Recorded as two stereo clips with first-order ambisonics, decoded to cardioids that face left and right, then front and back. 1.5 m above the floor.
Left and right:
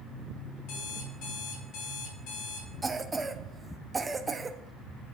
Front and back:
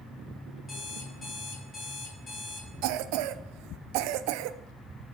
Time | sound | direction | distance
0.7 | an alarm clock | 70° left | 4.5 m
2.8 | a cough | 170° right | 0.6 m